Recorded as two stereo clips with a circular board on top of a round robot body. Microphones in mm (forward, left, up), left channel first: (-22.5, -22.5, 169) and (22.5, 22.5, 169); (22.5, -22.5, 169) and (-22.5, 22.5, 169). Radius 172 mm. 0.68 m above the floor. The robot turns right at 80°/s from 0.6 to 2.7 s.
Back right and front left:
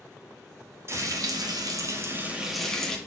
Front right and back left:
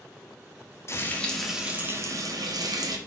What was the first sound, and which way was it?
Frying, straight ahead.